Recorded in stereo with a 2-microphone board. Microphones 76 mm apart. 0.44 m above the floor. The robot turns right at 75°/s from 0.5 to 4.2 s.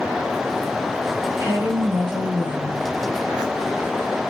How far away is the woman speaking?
About 1.8 m.